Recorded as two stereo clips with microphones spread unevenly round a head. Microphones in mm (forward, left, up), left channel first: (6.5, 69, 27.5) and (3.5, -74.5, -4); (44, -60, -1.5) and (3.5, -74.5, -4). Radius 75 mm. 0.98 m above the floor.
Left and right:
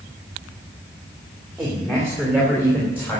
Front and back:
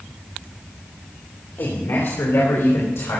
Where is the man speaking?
5° right, 2 m; by 3.2 s 15° left, 3.5 m.